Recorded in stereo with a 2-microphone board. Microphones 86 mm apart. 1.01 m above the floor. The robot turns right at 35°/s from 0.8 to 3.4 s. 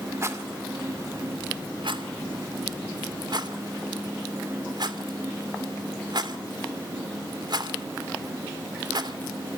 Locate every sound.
0.2 s a rattle: 35° right (ahead or behind), 2 m; by 9.2 s 55° right (ahead or behind), 2 m